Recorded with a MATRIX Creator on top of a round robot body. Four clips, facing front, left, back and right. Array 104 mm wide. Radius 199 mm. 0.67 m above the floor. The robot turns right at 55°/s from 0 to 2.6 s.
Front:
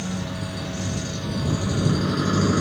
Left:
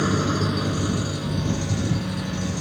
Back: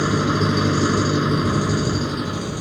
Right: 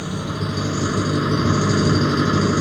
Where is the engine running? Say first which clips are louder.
Left 4 dB, back 11 dB; 150° left; by 2.6 s 65° right.